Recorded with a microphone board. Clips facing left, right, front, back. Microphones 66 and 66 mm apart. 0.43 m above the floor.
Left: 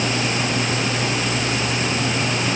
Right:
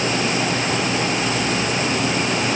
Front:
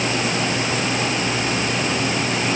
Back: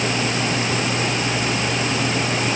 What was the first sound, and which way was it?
Only background noise.